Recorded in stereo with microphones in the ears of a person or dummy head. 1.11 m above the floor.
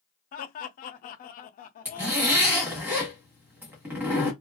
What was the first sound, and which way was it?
Laughter, 40° left (ahead or behind).